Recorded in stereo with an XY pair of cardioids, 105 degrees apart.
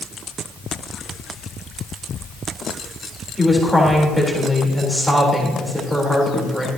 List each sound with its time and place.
3.4 s a woman speaking: 5° right, 4.5 m